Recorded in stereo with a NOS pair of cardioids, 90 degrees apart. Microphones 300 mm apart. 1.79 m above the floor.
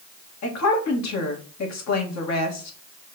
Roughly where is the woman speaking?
Ahead left.